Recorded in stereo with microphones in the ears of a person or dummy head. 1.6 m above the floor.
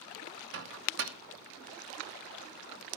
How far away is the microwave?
About 1.1 m.